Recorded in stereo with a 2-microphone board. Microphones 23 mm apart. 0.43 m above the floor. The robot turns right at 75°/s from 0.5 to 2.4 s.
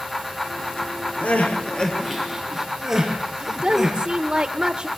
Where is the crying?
70° left (ahead or behind), 6 m; by 4.0 s 15° right (ahead or behind), 6 m.